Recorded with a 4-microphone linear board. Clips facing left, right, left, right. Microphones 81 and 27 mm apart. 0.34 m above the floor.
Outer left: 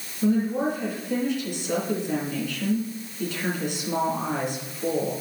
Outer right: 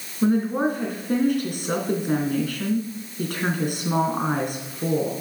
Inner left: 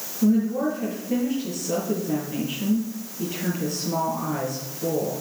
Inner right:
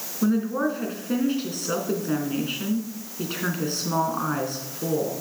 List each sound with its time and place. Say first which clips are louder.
0.2 s a woman speaking: outer right 2 dB, inner left 2 dB; 55° right (ahead or behind), 3 m